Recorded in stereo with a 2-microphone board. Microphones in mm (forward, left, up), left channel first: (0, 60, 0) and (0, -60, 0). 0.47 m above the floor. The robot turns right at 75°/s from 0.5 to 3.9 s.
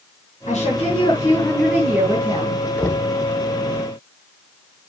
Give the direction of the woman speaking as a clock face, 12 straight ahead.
9 o'clock.